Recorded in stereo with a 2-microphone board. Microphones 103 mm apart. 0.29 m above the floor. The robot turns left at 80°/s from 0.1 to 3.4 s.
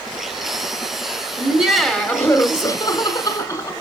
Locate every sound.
1.4 s laughter: 150° right, 1.1 m; by 3.7 s 50° left, 1.1 m